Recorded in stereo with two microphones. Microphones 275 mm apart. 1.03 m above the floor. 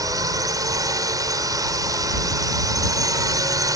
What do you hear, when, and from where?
0.0 s a drone: 15° right (ahead or behind)